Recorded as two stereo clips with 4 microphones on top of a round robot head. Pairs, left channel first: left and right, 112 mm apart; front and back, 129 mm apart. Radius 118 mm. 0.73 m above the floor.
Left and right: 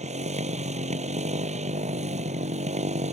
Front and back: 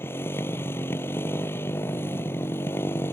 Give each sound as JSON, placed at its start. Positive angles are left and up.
{"t": 0.0, "sound": "a motorcycle", "azimuth_deg": -75}